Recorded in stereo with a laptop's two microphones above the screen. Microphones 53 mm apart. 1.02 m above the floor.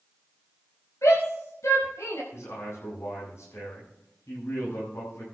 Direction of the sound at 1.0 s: 85° left.